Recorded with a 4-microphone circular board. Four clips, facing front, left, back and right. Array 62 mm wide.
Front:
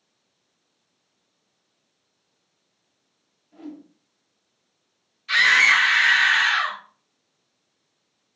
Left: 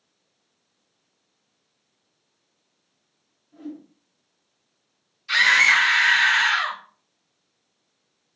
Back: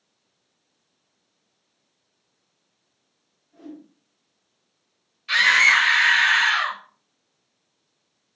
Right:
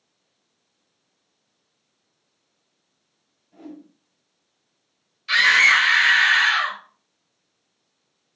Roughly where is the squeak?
I don't hear a squeak.